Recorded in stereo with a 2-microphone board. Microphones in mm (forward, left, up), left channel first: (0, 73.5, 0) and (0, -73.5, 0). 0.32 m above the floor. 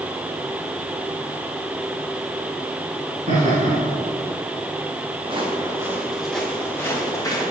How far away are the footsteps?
About 2 m.